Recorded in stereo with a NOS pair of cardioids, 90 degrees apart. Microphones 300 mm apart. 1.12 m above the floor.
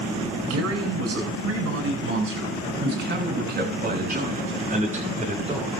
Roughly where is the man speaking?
Ahead right.